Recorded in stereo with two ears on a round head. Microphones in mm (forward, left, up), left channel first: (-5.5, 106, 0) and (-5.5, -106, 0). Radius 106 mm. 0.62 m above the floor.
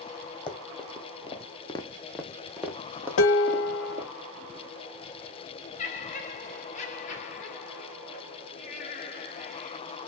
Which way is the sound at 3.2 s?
60° left (ahead or behind).